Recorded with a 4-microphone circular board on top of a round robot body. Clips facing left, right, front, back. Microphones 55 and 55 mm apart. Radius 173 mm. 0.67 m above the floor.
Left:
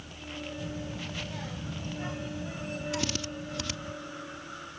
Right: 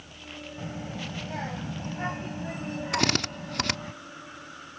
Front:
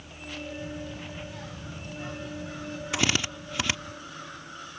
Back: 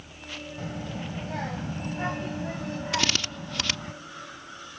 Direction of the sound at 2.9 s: 75° right.